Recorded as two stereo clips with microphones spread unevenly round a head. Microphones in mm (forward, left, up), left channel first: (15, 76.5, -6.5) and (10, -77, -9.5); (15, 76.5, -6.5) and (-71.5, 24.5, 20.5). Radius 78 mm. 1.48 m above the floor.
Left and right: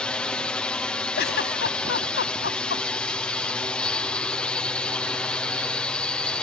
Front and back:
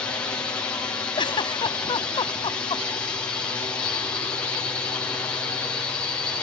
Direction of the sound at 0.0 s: 10° left.